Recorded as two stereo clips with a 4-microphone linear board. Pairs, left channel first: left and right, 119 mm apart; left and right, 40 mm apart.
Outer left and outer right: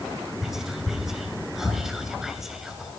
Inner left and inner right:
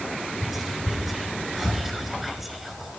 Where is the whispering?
5° right (ahead or behind), 2 m.